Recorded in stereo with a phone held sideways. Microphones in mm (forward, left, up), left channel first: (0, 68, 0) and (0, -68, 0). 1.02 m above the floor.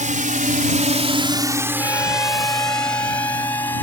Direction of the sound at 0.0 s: 65° right (ahead or behind).